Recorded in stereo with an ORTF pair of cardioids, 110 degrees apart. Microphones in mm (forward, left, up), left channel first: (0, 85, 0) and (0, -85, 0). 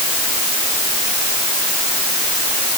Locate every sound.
Only background noise.